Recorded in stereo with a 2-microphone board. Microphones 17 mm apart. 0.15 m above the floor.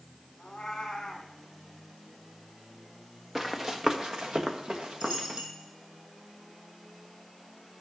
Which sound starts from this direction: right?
A dropped coin, at 5.0 s.